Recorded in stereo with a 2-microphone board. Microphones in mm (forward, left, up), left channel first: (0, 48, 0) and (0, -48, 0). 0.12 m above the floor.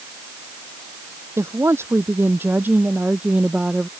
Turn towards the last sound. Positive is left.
turn(degrees=-10)  # may be behind; listen again after turning